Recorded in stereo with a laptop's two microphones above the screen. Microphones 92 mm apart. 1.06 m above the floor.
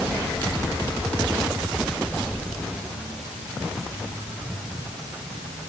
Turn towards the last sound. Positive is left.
No sound to turn to.